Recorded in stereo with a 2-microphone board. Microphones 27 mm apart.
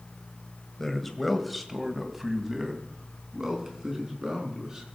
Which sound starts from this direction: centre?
A man speaking, at 0.8 s.